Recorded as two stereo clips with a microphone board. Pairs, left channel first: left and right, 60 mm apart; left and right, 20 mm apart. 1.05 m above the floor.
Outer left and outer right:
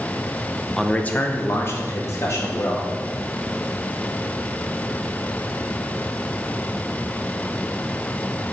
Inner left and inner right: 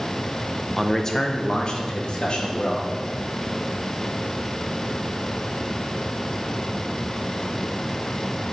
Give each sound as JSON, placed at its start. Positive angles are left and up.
{"t": 0.8, "sound": "a man speaking", "side_deg": 0, "distance_m": 0.7}